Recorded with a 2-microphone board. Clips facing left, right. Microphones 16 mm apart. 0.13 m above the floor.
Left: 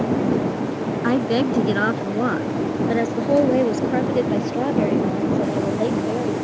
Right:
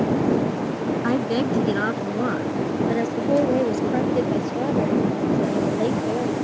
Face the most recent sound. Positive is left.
turn(degrees=35)  # may be behind; listen again after turning